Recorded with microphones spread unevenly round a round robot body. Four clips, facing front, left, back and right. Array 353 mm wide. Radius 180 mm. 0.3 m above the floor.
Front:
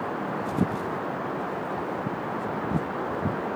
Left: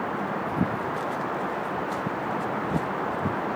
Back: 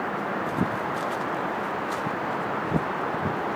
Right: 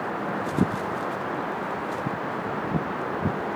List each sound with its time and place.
Only background noise.